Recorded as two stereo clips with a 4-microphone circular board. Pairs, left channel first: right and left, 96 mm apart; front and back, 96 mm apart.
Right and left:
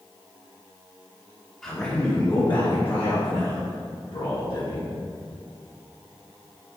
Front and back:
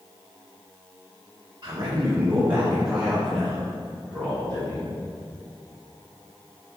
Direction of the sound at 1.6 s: 170° right.